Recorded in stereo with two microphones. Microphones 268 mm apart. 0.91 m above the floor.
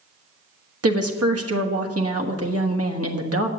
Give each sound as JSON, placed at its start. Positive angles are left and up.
{"t": 0.8, "sound": "a woman speaking", "side_deg": -60, "distance_m": 1.3}